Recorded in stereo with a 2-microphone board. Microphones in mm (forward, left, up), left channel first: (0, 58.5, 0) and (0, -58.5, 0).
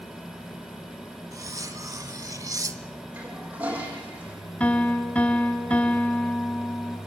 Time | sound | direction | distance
1.3 | cutlery clinking | 30° right (ahead or behind) | 0.9 m
3.1 | a toilet flushing | 15° right (ahead or behind) | 4.5 m
4.6 | a piano | 10° left (ahead or behind) | 1.6 m